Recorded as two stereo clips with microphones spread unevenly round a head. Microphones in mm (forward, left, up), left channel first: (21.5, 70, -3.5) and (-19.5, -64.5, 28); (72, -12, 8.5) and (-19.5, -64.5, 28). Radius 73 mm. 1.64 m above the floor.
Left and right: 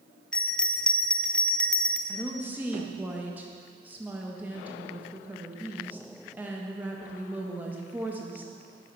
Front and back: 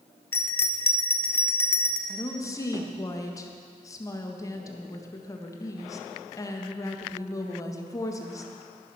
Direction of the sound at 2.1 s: 30° right.